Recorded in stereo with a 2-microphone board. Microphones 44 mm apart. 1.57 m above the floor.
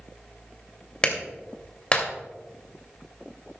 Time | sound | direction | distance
1.0 | a clap | 25° left (ahead or behind) | 2.5 m